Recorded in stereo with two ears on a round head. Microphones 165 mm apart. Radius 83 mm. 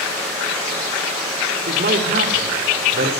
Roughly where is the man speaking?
Right.